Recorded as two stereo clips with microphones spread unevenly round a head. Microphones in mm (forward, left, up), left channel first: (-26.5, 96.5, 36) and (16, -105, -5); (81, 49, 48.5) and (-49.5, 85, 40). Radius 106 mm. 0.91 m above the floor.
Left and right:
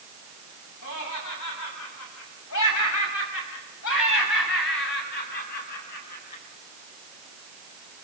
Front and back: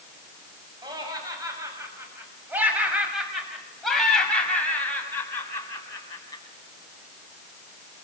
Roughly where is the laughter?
Left.